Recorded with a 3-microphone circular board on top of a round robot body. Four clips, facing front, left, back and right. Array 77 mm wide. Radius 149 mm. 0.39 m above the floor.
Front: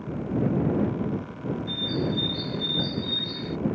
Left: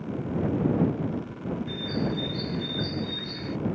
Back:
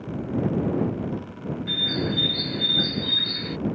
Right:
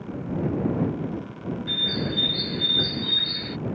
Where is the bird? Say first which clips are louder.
Left 1 dB, back 2 dB; 145° right.